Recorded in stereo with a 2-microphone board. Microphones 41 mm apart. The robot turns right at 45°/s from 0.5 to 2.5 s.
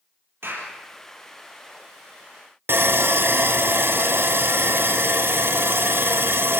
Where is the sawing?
65° right (ahead or behind), 1.3 m.